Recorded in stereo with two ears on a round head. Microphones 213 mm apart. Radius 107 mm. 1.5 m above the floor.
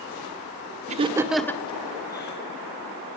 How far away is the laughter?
About 1.4 m.